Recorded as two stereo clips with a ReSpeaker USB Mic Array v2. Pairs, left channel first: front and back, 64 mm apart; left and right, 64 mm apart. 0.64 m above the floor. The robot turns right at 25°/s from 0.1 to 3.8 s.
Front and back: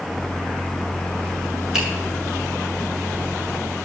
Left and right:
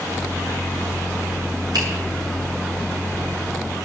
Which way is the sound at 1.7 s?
100° right.